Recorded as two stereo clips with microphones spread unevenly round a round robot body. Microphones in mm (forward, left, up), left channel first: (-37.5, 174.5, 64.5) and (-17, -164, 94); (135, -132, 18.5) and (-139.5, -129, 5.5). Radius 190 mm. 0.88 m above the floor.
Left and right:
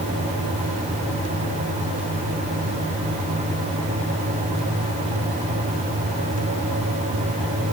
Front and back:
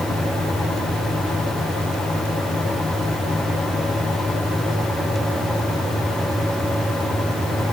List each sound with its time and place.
Only background noise.